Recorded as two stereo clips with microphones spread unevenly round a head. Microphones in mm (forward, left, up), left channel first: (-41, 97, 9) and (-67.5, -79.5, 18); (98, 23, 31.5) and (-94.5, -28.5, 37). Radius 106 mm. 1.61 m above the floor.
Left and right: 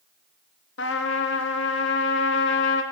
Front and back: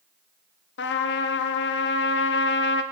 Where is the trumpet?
50° left, 1.1 m.